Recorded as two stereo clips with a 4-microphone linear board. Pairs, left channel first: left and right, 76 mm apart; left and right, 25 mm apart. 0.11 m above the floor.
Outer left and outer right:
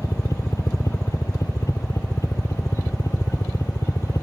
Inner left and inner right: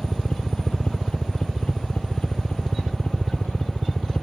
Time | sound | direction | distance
0.0 | a helicopter | 45° left (ahead or behind) | ?